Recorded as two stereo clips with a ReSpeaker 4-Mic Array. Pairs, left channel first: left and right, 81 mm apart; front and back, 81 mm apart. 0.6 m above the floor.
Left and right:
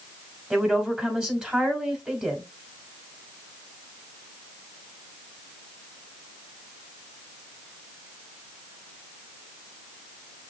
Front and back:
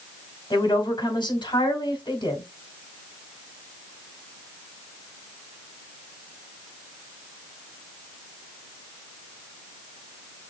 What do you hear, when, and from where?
0.5 s a woman speaking: 15° right, 2 m